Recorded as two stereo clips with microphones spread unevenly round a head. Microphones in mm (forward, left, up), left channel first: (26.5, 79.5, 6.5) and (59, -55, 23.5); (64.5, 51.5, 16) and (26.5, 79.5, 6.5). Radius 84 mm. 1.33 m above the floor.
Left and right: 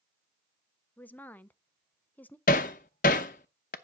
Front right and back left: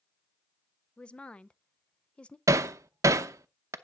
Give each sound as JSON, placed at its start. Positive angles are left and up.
{"t": 1.0, "sound": "a woman speaking", "azimuth_deg": 25, "distance_m": 0.5}
{"t": 2.5, "sound": "hammering", "azimuth_deg": 150, "distance_m": 0.7}